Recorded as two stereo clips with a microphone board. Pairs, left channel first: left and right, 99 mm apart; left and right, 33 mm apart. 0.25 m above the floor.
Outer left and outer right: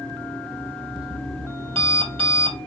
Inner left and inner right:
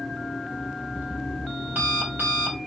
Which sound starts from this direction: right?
An alarm clock, at 0.5 s.